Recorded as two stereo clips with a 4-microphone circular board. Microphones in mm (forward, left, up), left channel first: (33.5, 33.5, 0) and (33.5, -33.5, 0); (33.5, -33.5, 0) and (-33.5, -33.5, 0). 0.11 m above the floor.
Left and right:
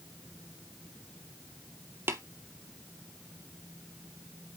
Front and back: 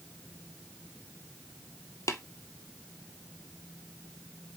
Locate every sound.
2.1 s tapping: 40° right, 0.8 m